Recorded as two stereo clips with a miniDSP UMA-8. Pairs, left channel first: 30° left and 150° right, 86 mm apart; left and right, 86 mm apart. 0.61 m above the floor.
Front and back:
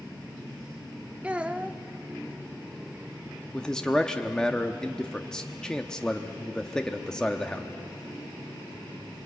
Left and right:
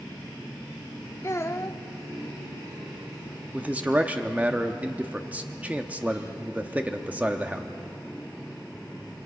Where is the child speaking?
140° left, 0.9 m.